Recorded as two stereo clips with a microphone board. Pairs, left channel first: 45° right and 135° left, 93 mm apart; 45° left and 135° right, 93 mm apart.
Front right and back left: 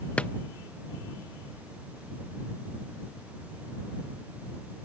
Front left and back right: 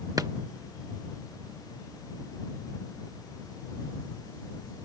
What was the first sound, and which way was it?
A drawer, 115° right.